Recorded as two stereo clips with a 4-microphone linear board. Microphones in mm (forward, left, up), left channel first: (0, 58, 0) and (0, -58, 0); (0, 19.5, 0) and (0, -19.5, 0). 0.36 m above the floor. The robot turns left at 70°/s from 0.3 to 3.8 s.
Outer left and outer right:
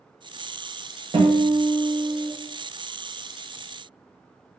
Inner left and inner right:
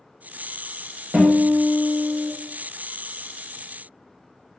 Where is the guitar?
70° right, 0.8 m; by 2.3 s 150° right, 0.8 m.